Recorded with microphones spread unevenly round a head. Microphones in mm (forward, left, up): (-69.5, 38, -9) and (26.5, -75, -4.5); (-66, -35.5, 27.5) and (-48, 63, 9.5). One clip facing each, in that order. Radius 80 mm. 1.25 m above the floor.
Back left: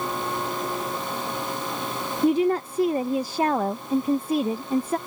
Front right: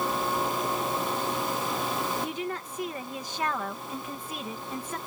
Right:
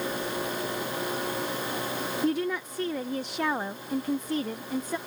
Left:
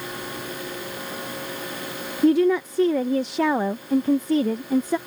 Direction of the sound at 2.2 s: 70° left.